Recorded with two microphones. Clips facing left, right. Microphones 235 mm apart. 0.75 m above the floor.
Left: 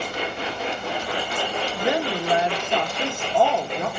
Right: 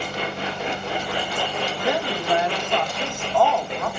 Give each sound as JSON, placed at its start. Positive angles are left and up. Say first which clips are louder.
{"t": 1.8, "sound": "a woman speaking", "louder": "left 2 dB", "side_deg": 20, "distance_m": 1.3}